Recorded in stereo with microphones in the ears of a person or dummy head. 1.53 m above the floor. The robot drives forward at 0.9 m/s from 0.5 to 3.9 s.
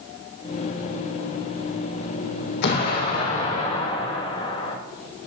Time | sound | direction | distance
2.6 | an explosion | 65° left (ahead or behind) | 1.6 m